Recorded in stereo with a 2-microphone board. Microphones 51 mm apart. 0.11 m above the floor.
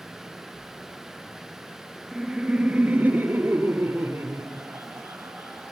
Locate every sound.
2.1 s laughter: 5° right (ahead or behind), 1.5 m; by 5.7 s 70° right (ahead or behind), 3.5 m